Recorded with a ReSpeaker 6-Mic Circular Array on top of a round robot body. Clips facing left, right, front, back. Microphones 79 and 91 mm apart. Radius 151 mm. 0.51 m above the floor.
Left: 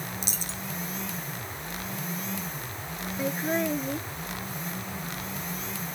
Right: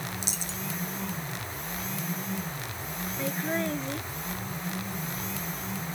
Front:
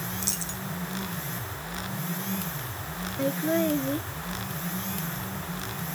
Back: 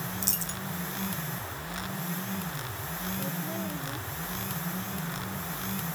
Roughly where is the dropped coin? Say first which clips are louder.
Even, front 1 dB; behind left.